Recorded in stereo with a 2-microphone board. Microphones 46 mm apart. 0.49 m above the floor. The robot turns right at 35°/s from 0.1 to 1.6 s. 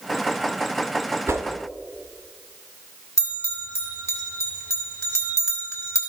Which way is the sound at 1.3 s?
70° right (ahead or behind).